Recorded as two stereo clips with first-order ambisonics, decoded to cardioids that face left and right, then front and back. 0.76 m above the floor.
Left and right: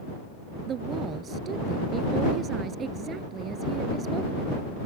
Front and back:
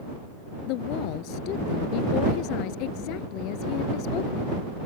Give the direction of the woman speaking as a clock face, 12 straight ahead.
1 o'clock.